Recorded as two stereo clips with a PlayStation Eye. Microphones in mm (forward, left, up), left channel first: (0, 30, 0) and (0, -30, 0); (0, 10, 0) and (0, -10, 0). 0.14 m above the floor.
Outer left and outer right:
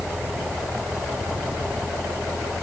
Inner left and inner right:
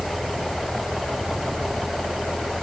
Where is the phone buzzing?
I don't hear a phone buzzing.